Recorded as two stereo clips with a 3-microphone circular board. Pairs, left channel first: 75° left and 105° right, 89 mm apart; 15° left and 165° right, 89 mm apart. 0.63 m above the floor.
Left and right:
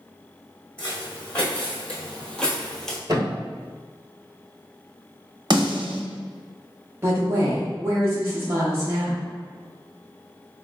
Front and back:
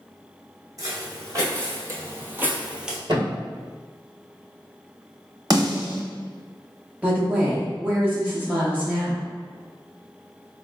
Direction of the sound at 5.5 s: 130° right.